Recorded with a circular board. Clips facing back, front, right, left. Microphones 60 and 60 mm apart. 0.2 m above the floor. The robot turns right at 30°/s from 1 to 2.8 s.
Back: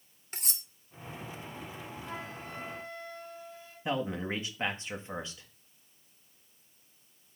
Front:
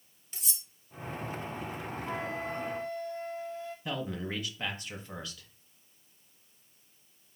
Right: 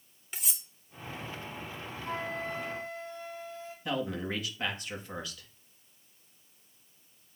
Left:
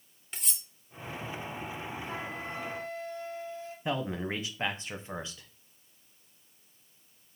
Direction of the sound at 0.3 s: Straight behind.